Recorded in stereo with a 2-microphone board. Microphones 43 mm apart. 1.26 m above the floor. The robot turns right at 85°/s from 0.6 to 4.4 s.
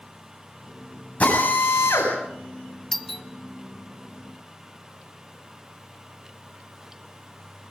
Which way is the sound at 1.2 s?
35° left.